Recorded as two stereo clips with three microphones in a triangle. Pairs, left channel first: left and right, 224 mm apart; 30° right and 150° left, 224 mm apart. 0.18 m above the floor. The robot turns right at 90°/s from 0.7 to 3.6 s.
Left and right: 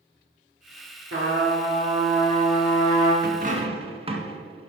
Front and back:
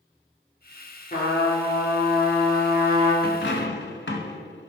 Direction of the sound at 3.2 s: 65° right.